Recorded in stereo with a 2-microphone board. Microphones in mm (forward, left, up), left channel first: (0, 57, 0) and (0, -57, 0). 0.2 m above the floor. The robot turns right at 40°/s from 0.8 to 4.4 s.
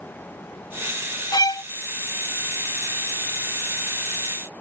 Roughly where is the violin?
Left.